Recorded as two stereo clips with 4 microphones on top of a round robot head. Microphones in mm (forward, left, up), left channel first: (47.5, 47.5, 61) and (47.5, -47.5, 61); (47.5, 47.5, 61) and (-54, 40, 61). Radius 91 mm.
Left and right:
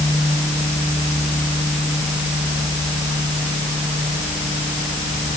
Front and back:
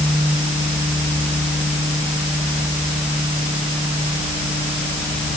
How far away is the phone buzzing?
I don't hear a phone buzzing.